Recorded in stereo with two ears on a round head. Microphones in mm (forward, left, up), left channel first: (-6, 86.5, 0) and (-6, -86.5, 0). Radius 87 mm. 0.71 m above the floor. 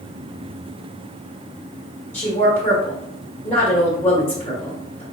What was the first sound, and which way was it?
A woman speaking, 10° left (ahead or behind).